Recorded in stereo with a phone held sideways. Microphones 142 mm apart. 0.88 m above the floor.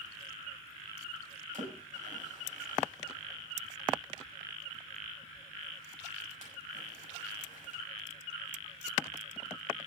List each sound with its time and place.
1.5 s a splash: 65° right (ahead or behind), 6 m